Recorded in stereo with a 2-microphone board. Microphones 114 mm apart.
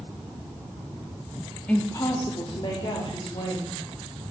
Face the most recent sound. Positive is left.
turn(degrees=55)  # may be behind; listen again after turning